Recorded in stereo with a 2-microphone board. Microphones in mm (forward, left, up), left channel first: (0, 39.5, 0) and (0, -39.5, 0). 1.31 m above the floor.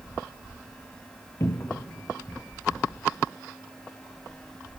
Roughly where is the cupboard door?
Left.